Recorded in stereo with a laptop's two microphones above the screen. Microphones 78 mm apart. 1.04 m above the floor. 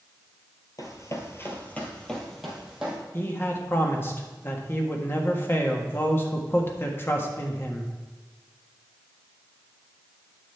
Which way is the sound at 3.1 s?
30° left (ahead or behind).